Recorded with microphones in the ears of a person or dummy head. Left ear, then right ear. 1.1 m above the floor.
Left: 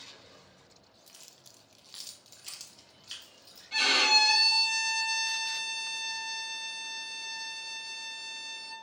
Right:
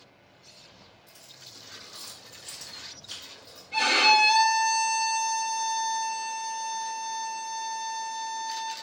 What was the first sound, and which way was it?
Keys jangling, 85° left.